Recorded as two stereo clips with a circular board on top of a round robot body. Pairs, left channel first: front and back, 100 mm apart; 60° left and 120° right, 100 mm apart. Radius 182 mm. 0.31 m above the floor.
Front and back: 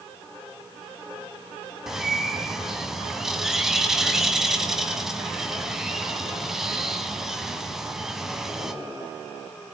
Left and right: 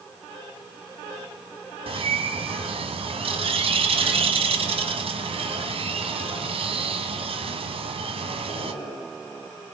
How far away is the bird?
About 1.7 m.